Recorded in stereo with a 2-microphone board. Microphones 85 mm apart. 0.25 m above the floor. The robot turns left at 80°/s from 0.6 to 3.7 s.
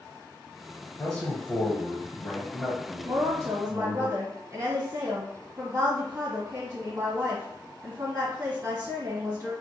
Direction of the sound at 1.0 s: 10° left (ahead or behind).